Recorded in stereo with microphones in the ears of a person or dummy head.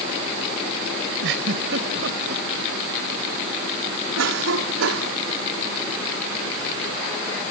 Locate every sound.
1.2 s a giggle: 65° right (ahead or behind)
4.2 s a cough: 75° right (ahead or behind)